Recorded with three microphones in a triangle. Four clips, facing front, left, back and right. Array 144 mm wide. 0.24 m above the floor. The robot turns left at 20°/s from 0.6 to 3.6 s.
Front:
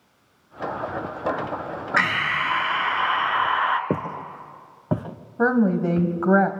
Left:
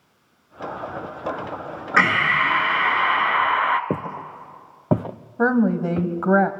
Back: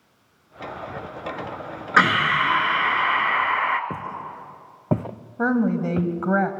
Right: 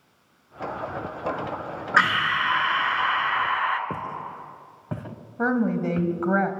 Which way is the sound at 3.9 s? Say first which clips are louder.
Left 4 dB, front 4 dB; 45° left.